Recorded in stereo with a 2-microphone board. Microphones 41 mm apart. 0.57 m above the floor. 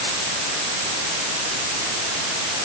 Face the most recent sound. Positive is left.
No sound to turn to.